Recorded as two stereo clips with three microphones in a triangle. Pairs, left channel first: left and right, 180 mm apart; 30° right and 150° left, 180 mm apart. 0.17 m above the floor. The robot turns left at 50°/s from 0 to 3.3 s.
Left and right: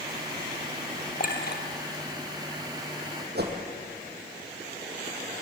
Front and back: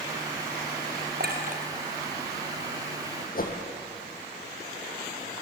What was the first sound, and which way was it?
A clink, 130° left.